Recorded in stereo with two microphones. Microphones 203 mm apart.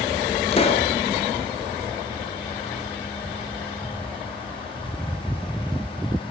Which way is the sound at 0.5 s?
30° left (ahead or behind).